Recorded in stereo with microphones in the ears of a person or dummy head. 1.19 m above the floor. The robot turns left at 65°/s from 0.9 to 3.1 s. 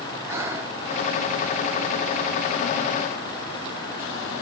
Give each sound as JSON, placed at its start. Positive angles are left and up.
{"t": 0.3, "sound": "breathing", "side_deg": -20, "distance_m": 0.5}